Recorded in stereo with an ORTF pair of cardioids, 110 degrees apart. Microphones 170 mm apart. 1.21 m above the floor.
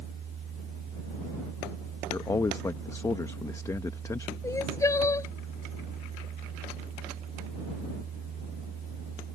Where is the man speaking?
20° left.